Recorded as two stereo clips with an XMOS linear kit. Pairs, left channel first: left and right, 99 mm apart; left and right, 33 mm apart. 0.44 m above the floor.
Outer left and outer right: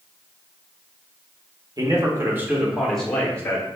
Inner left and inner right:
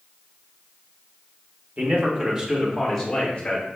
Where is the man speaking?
40° right (ahead or behind), 0.9 m; by 3.7 s 25° left (ahead or behind), 1.0 m.